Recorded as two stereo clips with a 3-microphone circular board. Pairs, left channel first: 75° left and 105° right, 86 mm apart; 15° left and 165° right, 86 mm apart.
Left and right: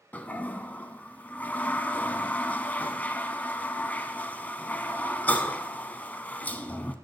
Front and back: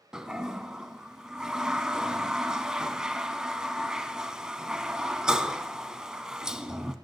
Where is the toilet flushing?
125° left, 0.8 m.